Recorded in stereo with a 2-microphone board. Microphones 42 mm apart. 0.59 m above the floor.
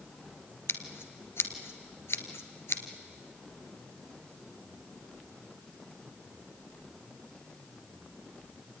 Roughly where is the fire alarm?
I don't hear a fire alarm.